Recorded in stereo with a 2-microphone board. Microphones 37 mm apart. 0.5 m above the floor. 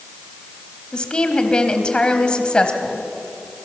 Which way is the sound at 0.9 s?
25° left (ahead or behind).